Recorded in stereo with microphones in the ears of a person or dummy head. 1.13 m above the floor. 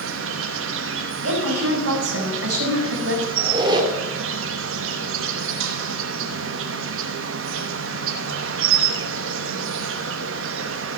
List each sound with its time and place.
0.0 s an insect: 75° right (ahead or behind), 1.1 m
1.2 s a woman speaking: 90° right, 4 m
3.4 s a squeak: 20° right (ahead or behind), 1.8 m